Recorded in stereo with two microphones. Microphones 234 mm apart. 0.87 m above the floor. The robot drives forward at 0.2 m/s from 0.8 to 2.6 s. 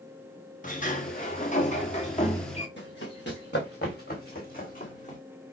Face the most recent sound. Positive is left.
turn(degrees=30)  # may be behind; listen again after turning